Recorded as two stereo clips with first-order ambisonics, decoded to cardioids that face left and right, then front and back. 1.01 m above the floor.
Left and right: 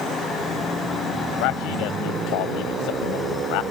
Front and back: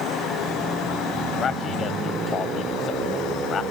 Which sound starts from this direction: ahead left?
A man speaking, at 1.4 s.